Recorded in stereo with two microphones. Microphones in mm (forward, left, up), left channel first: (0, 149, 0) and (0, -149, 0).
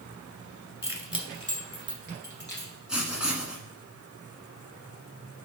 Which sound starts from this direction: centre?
Writing, at 2.9 s.